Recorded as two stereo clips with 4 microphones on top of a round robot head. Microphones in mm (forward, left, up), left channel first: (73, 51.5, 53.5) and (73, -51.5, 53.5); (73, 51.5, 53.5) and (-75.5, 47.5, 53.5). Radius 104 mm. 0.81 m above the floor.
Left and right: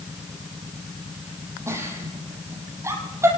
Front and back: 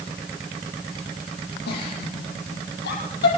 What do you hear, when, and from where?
1.7 s a giggle: 25° right, 7 m